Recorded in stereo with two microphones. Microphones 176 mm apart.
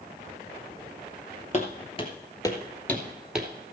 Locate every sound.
1.5 s footsteps: 40° left (ahead or behind), 2.0 m; by 3.5 s 5° right (ahead or behind), 1.8 m